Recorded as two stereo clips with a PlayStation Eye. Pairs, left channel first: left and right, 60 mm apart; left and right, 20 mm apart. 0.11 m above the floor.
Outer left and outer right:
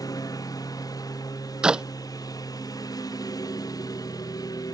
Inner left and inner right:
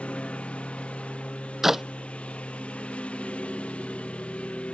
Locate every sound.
0.0 s a lawn mower: 80° left; by 4.7 s 85° left
1.6 s a clap: 15° right (ahead or behind)